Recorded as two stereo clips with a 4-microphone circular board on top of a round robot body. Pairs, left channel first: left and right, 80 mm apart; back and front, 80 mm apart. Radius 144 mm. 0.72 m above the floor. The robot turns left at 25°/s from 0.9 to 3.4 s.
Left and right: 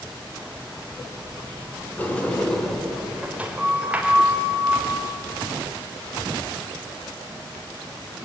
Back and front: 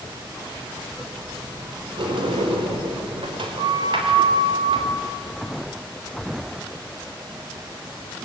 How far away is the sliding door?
About 3 m.